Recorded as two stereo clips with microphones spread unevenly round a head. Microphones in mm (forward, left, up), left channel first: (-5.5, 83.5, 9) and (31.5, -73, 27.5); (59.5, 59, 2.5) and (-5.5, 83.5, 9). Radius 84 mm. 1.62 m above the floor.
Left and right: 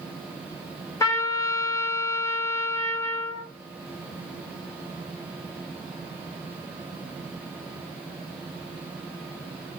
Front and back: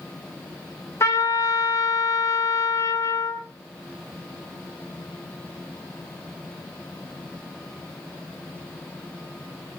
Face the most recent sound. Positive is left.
turn(degrees=30)